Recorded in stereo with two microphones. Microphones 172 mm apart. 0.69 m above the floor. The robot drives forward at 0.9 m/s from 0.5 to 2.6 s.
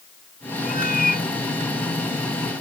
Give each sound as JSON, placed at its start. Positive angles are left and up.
{"t": 0.7, "sound": "a cat meowing", "side_deg": 55}